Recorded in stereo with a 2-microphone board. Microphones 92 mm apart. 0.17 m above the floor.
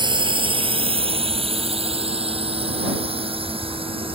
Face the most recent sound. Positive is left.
turn(degrees=-65)  # may be behind; listen again after turning